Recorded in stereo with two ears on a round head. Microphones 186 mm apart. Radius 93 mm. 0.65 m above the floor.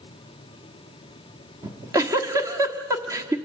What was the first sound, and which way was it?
A giggle, 15° right (ahead or behind).